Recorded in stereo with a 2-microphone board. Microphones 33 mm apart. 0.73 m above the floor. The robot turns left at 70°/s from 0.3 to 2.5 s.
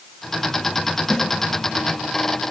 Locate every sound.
1.1 s a snare drum: 5° left (ahead or behind), 7.5 m; by 1.3 s 5° right (ahead or behind), 7.5 m